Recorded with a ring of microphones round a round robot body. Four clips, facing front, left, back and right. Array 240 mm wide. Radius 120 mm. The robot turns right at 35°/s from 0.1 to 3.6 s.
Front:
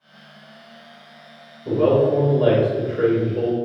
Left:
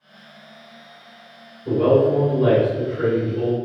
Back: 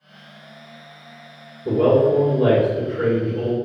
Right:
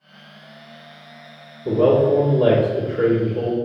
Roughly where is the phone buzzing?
I don't hear a phone buzzing.